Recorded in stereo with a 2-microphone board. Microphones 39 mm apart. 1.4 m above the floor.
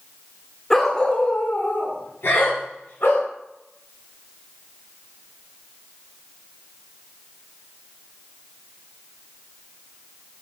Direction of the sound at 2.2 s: 85° left.